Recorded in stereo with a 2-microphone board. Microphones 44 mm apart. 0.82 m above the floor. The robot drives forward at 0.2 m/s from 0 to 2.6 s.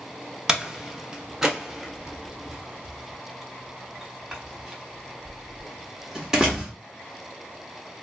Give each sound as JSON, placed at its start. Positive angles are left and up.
{"t": 0.5, "sound": "a door slam", "side_deg": -15, "distance_m": 0.5}